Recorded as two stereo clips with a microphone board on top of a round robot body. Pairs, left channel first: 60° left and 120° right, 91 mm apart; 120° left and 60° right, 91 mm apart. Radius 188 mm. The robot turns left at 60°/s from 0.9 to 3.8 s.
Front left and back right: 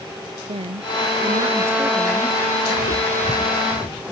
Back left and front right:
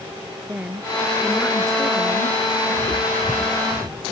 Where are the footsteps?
55° left; by 4.0 s 25° left.